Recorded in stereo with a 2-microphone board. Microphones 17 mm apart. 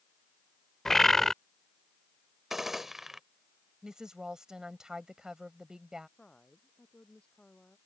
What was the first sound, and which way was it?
A bird, 20° left (ahead or behind).